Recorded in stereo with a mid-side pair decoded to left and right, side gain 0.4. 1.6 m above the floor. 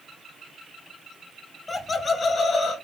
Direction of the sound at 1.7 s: 30° left.